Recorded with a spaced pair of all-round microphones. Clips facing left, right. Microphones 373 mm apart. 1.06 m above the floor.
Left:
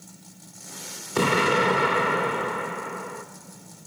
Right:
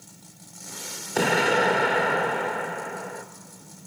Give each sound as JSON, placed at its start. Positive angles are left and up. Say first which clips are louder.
{"t": 1.1, "sound": "an explosion", "louder": "even", "side_deg": 10, "distance_m": 0.6}